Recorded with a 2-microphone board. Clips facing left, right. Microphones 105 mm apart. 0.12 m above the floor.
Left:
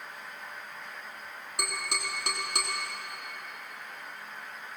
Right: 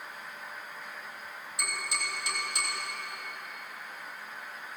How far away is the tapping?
About 3.5 m.